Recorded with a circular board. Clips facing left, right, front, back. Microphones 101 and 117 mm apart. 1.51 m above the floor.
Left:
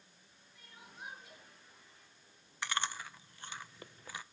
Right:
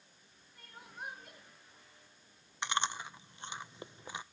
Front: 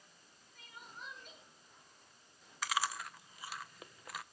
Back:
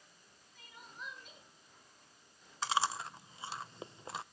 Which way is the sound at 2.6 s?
140° right.